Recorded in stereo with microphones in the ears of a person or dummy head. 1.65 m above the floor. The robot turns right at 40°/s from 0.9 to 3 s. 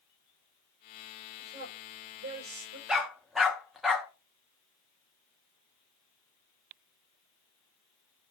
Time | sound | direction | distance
1.4 | a woman speaking | 25° right (ahead or behind) | 6.5 m
2.9 | a dog barking | centre (ahead or behind) | 1.3 m